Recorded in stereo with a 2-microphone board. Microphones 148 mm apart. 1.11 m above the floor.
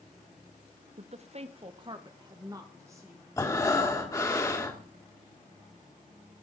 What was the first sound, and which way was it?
A woman speaking, 50° right (ahead or behind).